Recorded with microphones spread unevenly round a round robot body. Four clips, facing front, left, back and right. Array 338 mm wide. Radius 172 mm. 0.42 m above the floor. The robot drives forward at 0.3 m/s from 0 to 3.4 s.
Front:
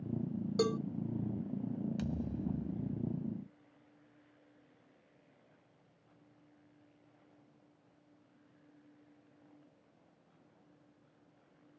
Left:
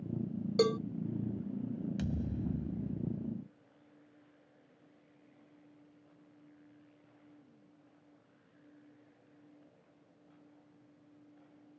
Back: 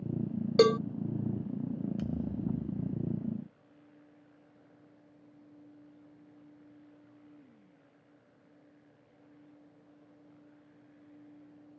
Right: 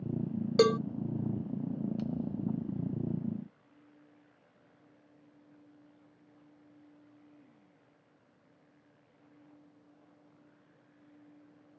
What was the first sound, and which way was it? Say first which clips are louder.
A cowbell: right 5 dB, back 10 dB; 155° right.